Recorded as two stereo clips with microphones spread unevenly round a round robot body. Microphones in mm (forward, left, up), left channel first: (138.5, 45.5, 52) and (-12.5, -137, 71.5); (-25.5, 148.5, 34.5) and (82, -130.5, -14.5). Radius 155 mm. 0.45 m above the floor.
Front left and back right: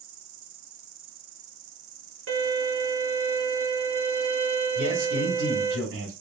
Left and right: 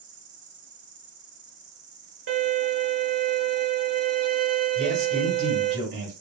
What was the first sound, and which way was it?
An insect, 135° right.